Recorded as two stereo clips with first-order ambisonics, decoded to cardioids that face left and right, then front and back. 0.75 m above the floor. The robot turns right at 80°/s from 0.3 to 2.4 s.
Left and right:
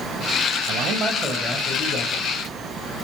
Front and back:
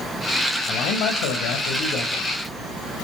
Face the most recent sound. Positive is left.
turn(degrees=80)